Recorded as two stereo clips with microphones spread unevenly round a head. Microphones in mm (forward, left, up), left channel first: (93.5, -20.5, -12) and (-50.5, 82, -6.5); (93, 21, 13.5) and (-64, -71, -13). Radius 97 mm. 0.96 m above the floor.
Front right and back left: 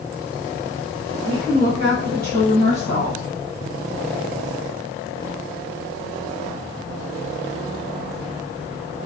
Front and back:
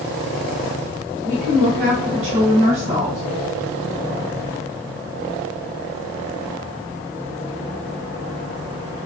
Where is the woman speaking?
105° right, 0.8 m; by 3.2 s 165° left, 1.6 m.